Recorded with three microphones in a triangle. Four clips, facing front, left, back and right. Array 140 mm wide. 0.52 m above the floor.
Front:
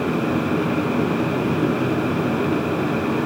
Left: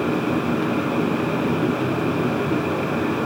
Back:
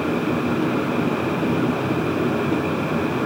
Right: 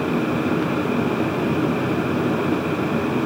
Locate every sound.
Only background noise.